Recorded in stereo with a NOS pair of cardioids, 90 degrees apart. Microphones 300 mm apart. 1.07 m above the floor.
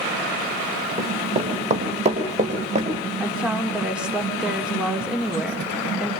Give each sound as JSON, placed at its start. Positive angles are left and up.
{"t": 1.0, "sound": "running footsteps", "azimuth_deg": -20, "distance_m": 6.5}
{"t": 3.2, "sound": "a woman speaking", "azimuth_deg": -5, "distance_m": 2.5}